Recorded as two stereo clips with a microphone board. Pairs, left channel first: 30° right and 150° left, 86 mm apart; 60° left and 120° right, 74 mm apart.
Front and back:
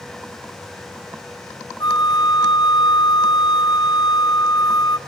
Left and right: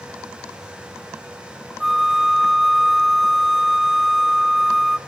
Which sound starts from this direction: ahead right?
A flute, at 1.8 s.